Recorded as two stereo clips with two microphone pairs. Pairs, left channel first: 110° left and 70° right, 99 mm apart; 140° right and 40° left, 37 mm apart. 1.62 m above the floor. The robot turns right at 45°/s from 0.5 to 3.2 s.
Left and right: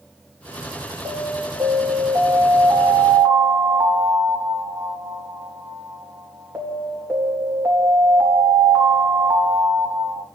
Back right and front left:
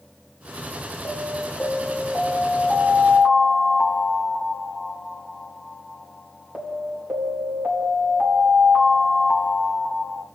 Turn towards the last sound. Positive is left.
turn(degrees=-5)